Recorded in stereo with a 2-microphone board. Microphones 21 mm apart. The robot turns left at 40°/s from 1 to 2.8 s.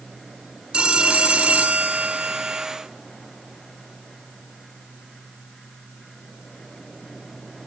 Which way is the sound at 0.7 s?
50° right.